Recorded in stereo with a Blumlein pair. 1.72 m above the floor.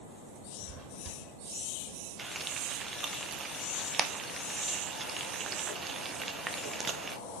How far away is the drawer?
About 4 m.